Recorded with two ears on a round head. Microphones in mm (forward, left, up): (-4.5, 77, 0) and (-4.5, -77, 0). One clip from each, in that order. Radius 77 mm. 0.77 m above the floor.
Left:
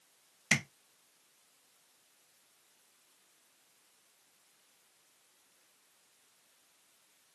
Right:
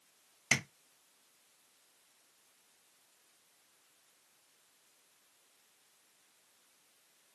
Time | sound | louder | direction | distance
0.5 | tapping | left 1 dB | 5° right (ahead or behind) | 1.3 m